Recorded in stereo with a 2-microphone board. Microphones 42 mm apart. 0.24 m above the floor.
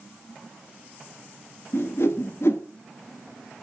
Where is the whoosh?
75° left (ahead or behind), 1.3 m.